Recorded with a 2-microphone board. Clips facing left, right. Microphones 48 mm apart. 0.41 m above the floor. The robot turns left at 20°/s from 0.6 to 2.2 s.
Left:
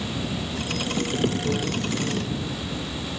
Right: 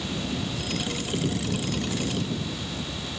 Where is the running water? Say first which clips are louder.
Left 1 dB; 155° left; by 3.2 s 125° left.